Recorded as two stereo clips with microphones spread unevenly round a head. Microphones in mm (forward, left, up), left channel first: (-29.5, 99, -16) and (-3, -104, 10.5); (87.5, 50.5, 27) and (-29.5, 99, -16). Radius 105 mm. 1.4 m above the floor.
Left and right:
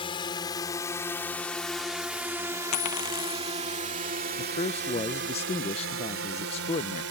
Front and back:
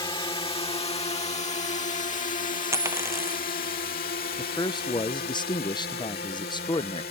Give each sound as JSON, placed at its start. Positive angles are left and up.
{"t": 0.0, "sound": "a drone", "azimuth_deg": 30}
{"t": 2.7, "sound": "a dropped coin", "azimuth_deg": 85}
{"t": 4.4, "sound": "a man speaking", "azimuth_deg": 35}